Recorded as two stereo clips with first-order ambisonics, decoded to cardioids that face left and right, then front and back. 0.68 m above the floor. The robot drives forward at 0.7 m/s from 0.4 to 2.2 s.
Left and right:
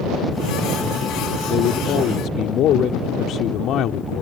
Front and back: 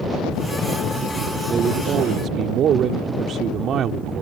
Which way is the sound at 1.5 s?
115° left.